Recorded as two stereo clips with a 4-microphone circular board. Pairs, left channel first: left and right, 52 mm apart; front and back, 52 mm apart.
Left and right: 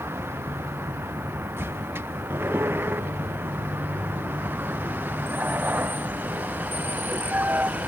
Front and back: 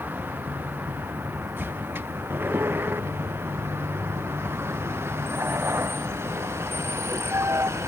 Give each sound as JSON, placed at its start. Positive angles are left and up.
{"t": 0.0, "sound": "a vehicle", "azimuth_deg": -125}